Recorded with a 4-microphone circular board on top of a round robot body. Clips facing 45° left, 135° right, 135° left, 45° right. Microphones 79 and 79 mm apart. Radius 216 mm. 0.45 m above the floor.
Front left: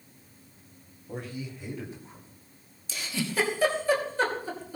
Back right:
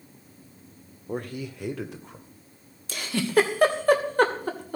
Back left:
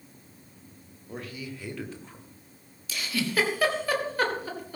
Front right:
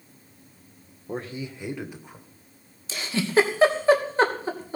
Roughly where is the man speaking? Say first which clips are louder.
Back right 5 dB, front right 5 dB; right.